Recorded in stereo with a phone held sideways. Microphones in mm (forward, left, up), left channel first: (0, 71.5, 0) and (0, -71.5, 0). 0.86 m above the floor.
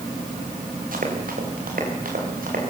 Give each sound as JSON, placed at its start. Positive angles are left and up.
{"t": 0.9, "sound": "running footsteps", "side_deg": -80, "distance_m": 6.5}